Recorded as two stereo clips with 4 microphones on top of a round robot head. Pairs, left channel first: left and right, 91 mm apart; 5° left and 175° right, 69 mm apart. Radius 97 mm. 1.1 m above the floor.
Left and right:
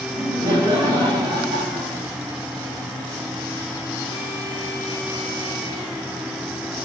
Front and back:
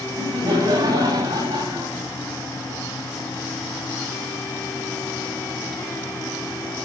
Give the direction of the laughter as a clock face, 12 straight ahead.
5 o'clock.